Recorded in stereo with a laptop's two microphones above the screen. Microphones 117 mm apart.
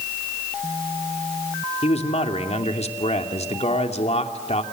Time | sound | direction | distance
1.8 | a man speaking | 65° left (ahead or behind) | 2.5 m